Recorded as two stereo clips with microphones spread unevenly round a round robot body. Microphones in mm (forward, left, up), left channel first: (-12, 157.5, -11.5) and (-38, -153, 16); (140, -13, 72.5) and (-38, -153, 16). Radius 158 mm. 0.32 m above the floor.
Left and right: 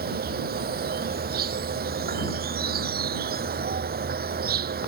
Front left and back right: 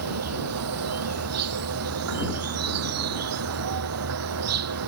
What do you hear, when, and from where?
0.0 s an insect: 155° right